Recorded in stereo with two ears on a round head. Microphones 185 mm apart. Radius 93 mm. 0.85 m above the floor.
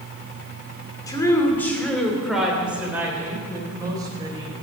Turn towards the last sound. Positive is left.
turn(degrees=-20)  # may be behind; listen again after turning